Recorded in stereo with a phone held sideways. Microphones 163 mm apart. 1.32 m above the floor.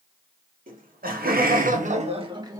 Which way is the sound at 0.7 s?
60° right (ahead or behind).